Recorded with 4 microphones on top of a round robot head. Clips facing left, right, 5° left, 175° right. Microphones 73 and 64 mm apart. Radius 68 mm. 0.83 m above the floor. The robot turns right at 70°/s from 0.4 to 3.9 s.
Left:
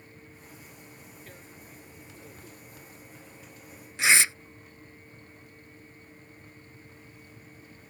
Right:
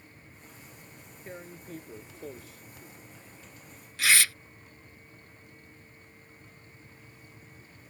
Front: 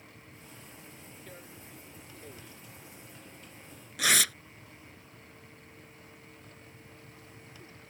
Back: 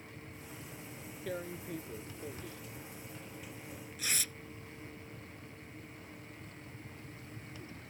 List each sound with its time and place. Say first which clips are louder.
1.3 s tearing paper: right 6 dB, back 13 dB; 165° right; by 4.3 s 20° left